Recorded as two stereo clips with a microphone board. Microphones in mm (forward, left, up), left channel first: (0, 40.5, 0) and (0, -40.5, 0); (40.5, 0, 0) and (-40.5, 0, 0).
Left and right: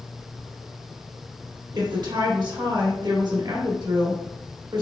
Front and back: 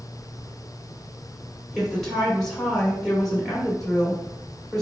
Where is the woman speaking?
85° right, 2.0 m.